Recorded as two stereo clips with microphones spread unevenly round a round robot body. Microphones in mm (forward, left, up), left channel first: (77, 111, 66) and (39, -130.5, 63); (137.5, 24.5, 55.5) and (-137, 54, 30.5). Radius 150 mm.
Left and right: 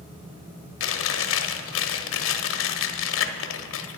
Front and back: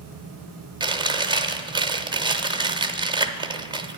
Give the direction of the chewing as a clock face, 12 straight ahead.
9 o'clock.